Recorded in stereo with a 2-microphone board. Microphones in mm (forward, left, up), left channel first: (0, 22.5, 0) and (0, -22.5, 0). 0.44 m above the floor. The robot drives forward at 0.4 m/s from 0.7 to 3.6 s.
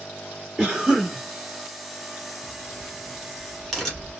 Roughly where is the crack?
Centre.